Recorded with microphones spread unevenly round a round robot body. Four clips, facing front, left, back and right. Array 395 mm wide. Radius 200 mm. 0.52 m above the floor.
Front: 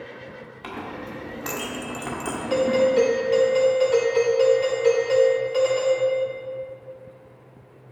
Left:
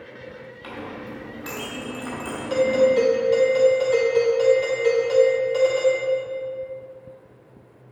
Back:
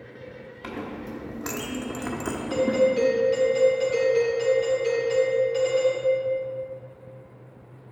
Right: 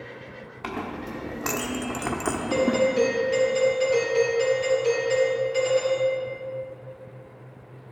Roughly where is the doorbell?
Ahead left.